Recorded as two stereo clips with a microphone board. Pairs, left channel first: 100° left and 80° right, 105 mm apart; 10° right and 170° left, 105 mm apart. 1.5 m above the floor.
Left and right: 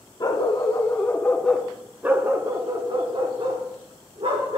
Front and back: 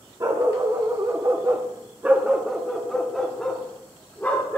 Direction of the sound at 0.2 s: 135° left.